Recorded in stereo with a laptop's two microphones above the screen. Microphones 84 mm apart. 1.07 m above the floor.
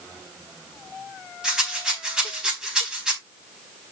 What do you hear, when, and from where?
1.4 s a rattle: 10° right (ahead or behind), 4 m